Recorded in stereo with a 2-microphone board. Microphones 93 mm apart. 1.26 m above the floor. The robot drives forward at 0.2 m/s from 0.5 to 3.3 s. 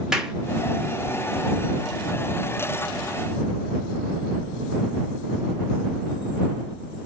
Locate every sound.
0.1 s a clap: 5° right (ahead or behind), 1.5 m